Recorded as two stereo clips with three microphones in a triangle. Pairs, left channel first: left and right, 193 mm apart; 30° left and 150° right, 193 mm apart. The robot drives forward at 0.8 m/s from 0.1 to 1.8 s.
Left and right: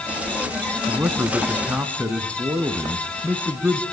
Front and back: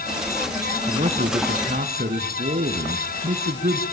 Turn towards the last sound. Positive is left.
turn(degrees=-170)